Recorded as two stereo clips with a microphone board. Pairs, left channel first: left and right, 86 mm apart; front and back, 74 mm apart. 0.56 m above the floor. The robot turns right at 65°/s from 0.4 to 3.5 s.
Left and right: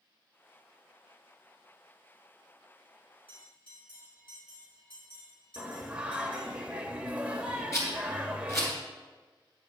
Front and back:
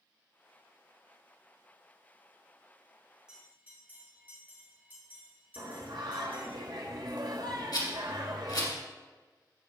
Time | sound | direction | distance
3.3 | a bell | 100° left | 4 m
5.6 | singing | 165° right | 1.1 m
7.7 | a rattle | 35° left | 3 m